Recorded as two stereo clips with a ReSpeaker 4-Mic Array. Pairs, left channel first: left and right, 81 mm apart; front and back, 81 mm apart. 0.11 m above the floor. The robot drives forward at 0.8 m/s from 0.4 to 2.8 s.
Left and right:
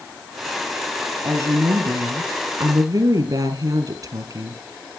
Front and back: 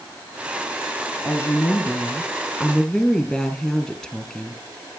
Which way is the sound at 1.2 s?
45° right.